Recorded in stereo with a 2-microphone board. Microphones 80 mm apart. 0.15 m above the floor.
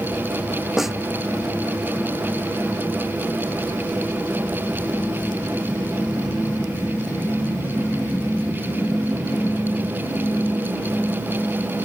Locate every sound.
0.8 s a snare drum: 5° right (ahead or behind)